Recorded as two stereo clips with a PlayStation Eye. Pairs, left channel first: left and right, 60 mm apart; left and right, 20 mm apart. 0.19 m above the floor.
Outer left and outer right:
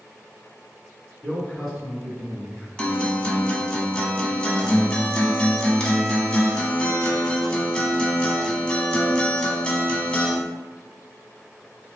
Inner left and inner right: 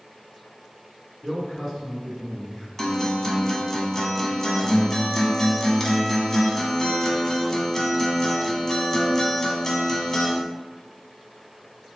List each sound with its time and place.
1.2 s a man speaking: 5° right (ahead or behind), 2.0 m
2.8 s a guitar: 15° left (ahead or behind), 0.6 m